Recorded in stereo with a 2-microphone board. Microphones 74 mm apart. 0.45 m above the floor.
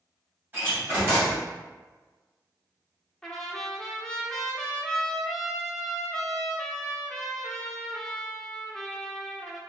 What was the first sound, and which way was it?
A door slam, 30° right (ahead or behind).